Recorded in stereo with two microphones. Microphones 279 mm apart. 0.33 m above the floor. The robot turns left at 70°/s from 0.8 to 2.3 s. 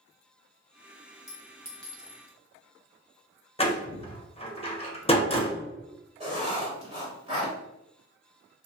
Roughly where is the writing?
Right.